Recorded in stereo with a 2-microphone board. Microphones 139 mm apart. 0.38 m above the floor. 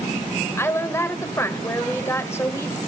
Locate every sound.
0.6 s a woman speaking: 20° left (ahead or behind), 1.2 m